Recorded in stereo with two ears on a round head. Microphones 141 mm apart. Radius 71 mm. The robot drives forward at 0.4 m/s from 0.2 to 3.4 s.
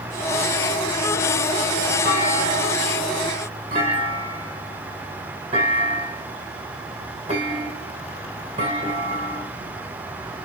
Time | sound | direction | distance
2.0 | a clunk | 40° right (ahead or behind) | 6 m